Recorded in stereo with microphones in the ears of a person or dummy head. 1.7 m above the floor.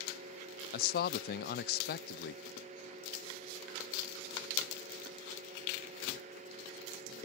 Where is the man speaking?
45° left (ahead or behind).